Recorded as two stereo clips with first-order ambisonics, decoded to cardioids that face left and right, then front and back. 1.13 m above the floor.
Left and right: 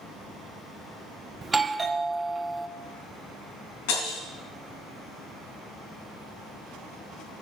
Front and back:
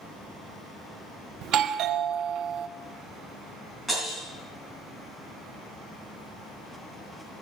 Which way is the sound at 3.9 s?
95° left.